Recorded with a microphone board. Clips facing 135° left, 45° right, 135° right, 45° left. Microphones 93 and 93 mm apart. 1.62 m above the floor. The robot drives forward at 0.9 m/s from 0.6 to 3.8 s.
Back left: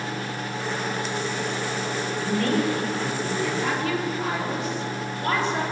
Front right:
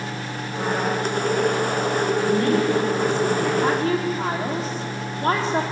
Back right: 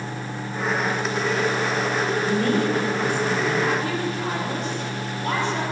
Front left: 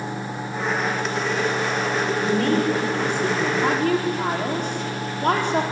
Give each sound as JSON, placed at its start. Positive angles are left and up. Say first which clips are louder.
{"t": 2.2, "sound": "a woman speaking", "louder": "front right 2 dB, front left 2 dB", "azimuth_deg": 15, "distance_m": 5.5}
{"t": 3.6, "sound": "a woman speaking", "louder": "front right 5 dB, front left 3 dB", "azimuth_deg": 10, "distance_m": 4.5}